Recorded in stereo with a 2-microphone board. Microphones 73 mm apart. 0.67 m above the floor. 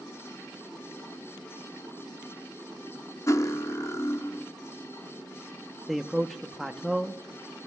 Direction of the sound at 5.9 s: Centre (ahead or behind).